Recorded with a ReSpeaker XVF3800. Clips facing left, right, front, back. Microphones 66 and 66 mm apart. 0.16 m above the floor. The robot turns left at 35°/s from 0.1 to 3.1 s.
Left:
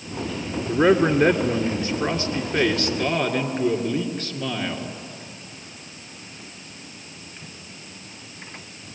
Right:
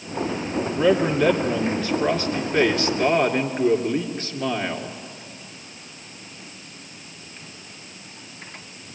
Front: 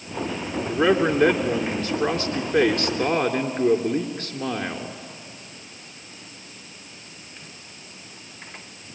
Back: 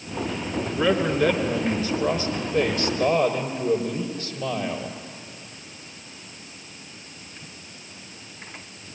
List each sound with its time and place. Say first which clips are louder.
0.7 s a man speaking: left 3 dB, front 3 dB; 70° left, 3 m; by 5.0 s 15° right, 3 m